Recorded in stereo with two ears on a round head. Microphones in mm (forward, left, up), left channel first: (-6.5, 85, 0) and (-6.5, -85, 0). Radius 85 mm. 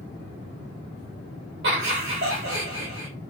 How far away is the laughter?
About 1.0 m.